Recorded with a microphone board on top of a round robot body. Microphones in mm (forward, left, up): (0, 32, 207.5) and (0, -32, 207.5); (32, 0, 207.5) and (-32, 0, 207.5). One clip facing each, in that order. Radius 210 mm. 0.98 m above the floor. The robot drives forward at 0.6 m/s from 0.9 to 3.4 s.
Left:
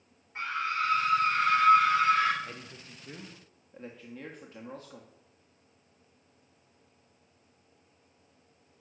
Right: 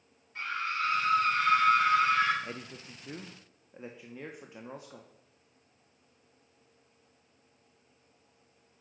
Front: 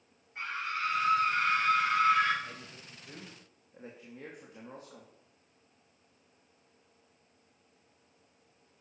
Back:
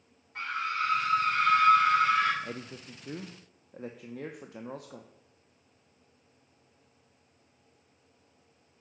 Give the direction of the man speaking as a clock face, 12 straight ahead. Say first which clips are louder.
Right 2 dB, back 6 dB; 5 o'clock.